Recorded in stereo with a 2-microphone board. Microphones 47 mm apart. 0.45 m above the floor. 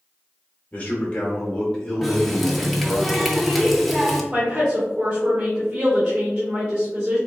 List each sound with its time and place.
0.7 s a man speaking: 30° left (ahead or behind), 1.3 m; by 3.0 s centre (ahead or behind), 1.8 m
2.0 s a running tap: centre (ahead or behind), 0.6 m
4.3 s a woman speaking: 20° right (ahead or behind), 1.3 m